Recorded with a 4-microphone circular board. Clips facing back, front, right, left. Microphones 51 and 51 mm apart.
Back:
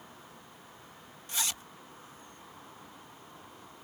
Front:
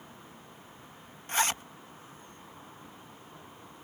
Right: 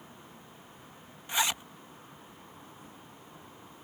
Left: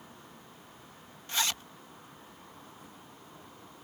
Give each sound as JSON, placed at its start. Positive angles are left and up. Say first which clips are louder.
{"t": 1.3, "sound": "a zipper", "louder": "front 8 dB, right 2 dB", "azimuth_deg": -20}